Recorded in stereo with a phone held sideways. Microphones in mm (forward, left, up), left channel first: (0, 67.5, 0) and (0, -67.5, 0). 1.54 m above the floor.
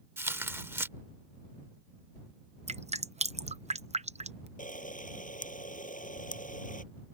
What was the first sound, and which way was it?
Tearing paper, 20° right (ahead or behind).